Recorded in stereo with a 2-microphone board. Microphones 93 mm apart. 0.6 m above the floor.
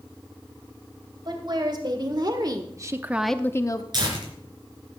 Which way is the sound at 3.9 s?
50° right (ahead or behind).